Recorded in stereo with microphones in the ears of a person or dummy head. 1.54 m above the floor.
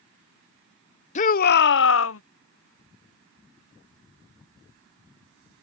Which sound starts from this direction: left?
A shout, at 1.1 s.